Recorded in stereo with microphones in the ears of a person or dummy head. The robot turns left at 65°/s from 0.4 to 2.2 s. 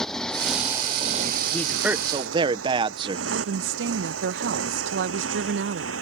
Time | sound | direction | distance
0.0 | a motorcycle | centre (ahead or behind) | ?
1.5 | a man speaking | 10° left | ?
3.3 | a woman speaking | 75° right (ahead or behind) | ?